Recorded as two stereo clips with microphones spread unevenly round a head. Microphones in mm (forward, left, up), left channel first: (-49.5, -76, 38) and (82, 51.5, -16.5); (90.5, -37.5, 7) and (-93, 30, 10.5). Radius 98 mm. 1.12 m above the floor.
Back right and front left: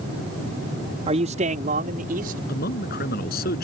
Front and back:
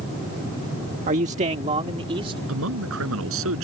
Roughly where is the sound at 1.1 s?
Left.